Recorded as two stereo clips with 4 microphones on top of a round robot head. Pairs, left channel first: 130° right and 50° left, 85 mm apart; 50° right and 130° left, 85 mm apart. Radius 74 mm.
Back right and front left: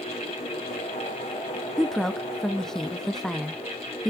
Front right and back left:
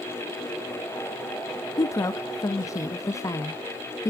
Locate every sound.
1.8 s a woman speaking: 50° right, 0.8 m